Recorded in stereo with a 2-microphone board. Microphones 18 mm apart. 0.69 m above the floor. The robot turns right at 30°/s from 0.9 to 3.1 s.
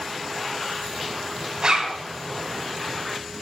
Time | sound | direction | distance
1.6 | a zipper | 35° right (ahead or behind) | 2 m